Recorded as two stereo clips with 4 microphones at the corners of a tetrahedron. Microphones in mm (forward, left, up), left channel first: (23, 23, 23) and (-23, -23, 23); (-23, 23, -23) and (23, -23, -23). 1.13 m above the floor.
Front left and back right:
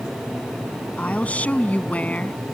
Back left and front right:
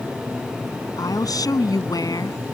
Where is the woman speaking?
115° left.